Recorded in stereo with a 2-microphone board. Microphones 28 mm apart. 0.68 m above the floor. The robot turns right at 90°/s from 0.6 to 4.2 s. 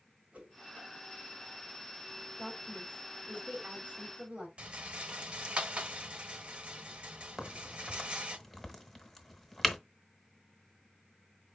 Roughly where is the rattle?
Right.